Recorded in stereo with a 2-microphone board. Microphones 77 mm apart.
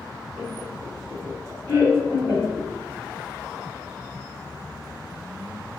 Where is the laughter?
25° right (ahead or behind), 1.6 m; by 2.7 s 20° right (ahead or behind), 1.5 m.